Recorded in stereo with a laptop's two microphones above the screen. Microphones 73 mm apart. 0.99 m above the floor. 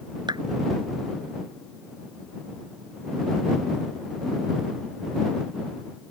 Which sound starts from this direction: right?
A clap, at 0.3 s.